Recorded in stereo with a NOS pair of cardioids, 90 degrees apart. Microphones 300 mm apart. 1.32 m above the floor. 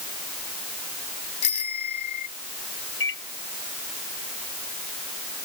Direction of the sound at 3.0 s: 40° left.